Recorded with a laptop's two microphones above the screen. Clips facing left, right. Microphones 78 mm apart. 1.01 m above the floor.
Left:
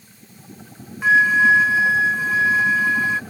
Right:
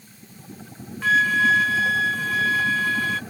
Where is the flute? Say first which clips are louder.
Left 4 dB; 20° left (ahead or behind).